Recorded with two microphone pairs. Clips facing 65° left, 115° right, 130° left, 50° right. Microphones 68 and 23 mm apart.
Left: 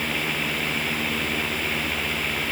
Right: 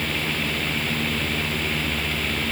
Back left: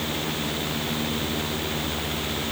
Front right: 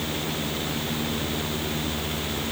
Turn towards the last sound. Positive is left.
No sound to turn to.